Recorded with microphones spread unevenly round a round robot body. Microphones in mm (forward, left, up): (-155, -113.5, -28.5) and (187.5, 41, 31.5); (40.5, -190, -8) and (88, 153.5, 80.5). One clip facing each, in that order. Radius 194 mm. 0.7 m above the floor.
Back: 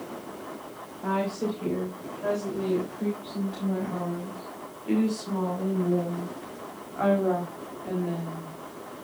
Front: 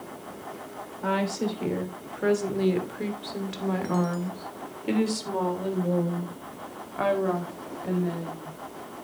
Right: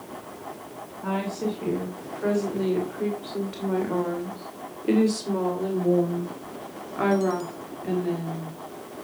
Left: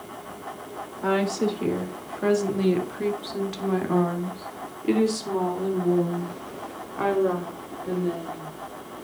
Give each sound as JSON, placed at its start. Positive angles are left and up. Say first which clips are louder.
{"t": 1.0, "sound": "a woman speaking", "louder": "front 1 dB, left 5 dB", "azimuth_deg": 60, "distance_m": 3.5}